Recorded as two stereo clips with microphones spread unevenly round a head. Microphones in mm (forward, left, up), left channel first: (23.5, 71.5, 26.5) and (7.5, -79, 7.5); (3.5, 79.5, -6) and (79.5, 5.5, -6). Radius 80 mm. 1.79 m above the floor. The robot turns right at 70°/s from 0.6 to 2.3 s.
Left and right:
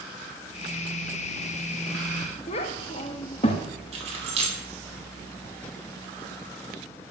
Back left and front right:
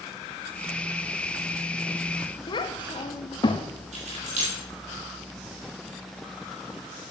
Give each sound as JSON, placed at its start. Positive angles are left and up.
{"t": 2.5, "sound": "a child speaking", "azimuth_deg": 115, "distance_m": 1.5}
{"t": 3.9, "sound": "keys jangling", "azimuth_deg": -40, "distance_m": 5.5}